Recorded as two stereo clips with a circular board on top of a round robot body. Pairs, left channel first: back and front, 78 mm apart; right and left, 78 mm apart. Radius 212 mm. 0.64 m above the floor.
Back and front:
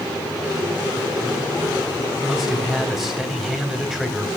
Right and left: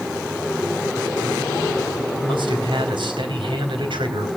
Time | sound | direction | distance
2.2 | a man speaking | 85° left | 4.5 m